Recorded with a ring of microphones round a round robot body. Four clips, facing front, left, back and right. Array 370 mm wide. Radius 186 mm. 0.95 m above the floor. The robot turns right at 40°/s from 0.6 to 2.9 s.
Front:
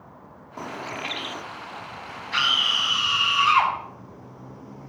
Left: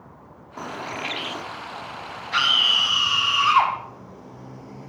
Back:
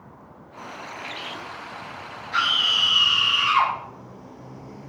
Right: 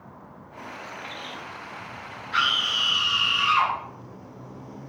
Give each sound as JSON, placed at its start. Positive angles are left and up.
{"t": 0.6, "sound": "a bird", "azimuth_deg": 45, "distance_m": 0.9}
{"t": 2.3, "sound": "a scream", "azimuth_deg": 55, "distance_m": 7.0}